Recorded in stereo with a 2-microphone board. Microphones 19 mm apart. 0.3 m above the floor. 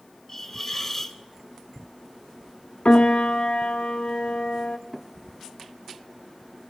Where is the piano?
65° left (ahead or behind), 0.9 m.